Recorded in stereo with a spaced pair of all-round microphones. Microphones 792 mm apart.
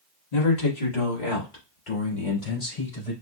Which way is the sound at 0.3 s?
60° left (ahead or behind).